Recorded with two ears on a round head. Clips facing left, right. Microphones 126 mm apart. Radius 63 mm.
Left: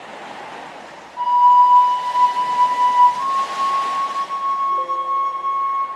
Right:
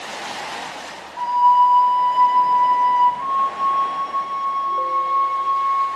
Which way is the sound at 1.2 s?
20° left (ahead or behind).